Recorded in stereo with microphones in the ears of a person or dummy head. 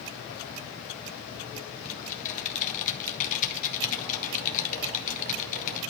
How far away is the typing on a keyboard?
About 2 m.